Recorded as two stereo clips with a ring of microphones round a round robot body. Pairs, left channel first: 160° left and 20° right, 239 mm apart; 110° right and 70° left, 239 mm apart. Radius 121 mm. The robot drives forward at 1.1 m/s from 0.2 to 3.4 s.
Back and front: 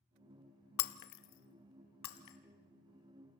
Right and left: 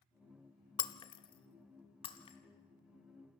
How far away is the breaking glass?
About 0.9 m.